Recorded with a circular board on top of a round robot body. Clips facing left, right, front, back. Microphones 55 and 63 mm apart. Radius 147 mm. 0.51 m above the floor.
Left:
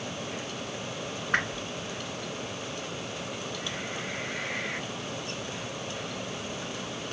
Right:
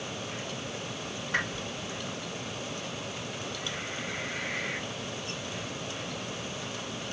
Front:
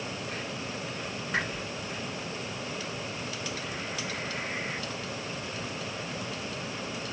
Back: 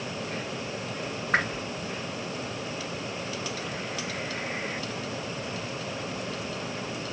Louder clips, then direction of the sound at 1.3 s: Left 3 dB, back 5 dB; 135° left.